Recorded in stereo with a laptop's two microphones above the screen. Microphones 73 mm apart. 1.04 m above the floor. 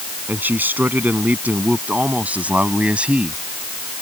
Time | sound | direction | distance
0.3 | a man speaking | 25° right (ahead or behind) | ?